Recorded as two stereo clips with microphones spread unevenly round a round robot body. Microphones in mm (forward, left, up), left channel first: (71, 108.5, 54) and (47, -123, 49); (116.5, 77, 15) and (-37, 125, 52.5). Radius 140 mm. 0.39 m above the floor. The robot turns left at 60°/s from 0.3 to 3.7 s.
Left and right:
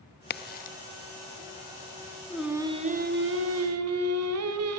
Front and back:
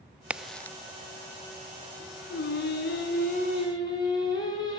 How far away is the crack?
About 0.6 m.